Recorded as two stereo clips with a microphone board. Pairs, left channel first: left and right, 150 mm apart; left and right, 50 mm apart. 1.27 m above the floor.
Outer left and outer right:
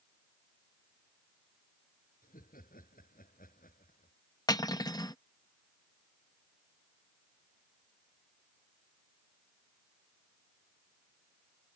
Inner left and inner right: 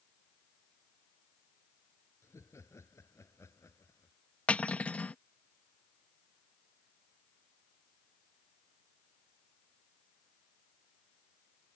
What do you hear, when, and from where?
2.2 s laughter: 70° left (ahead or behind)
4.5 s cutlery clinking: 25° left (ahead or behind)